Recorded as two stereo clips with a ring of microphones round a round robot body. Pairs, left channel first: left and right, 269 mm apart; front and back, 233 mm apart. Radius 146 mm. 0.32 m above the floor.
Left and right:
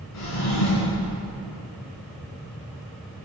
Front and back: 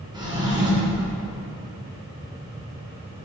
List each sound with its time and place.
0.1 s a drawer: 110° left, 2.5 m